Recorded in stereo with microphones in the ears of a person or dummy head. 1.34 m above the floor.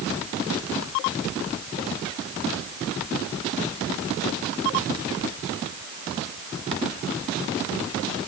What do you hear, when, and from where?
Only background noise.